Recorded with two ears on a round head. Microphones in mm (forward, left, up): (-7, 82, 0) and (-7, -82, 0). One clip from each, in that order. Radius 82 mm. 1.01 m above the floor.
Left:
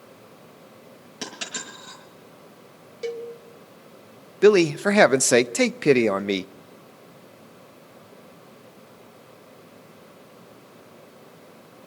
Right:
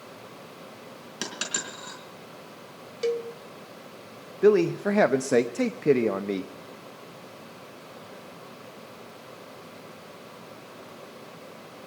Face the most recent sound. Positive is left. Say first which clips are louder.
# left 4 dB
turn(degrees=70)  # may be behind; listen again after turning